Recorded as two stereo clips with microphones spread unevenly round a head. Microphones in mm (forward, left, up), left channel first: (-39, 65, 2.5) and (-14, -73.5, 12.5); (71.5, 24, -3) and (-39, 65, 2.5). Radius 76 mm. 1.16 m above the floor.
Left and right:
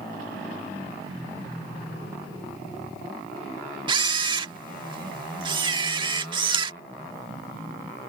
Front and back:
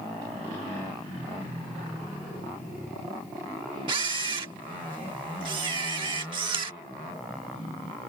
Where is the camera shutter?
135° right.